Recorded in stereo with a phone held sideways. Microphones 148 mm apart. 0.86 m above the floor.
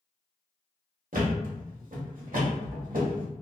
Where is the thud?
70° right (ahead or behind), 1.1 m.